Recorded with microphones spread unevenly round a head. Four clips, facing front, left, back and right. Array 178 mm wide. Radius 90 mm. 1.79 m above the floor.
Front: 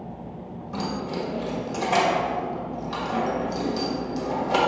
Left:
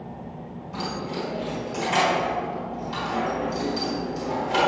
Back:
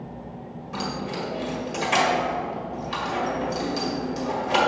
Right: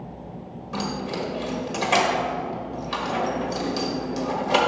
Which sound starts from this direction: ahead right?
Keys jangling, at 0.7 s.